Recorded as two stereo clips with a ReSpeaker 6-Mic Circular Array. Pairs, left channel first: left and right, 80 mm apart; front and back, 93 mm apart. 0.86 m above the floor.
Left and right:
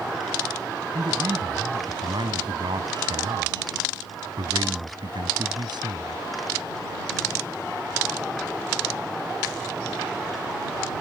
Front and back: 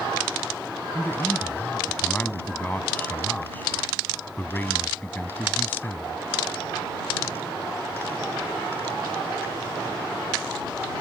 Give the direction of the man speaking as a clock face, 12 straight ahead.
2 o'clock.